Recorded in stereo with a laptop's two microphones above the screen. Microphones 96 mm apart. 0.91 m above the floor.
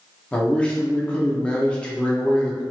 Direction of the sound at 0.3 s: 10° left (ahead or behind).